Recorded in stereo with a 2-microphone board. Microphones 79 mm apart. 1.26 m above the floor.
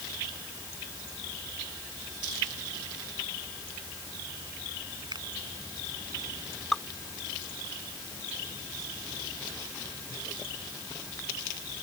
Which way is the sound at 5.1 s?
60° right (ahead or behind).